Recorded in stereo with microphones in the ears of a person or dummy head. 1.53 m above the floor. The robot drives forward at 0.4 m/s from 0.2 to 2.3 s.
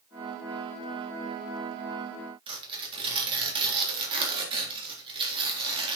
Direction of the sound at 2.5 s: 35° right (ahead or behind).